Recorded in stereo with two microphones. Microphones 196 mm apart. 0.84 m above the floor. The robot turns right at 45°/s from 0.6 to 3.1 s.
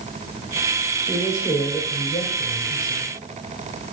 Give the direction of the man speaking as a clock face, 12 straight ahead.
11 o'clock.